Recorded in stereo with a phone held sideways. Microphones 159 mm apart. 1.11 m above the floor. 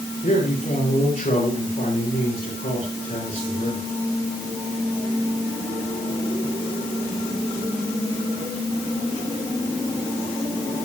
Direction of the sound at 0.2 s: 60° left (ahead or behind).